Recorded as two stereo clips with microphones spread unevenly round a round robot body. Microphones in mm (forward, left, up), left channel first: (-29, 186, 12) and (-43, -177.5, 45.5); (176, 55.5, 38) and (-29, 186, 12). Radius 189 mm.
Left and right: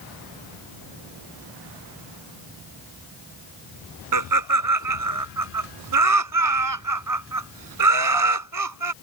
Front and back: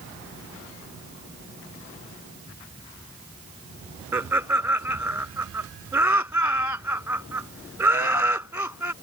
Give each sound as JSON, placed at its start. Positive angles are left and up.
{"t": 4.1, "sound": "laughter", "azimuth_deg": -130}